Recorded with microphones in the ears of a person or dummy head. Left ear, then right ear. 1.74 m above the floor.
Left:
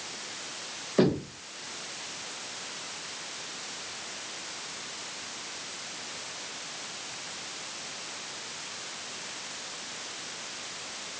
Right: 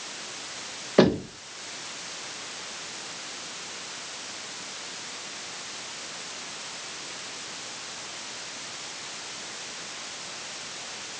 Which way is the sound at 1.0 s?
25° right (ahead or behind).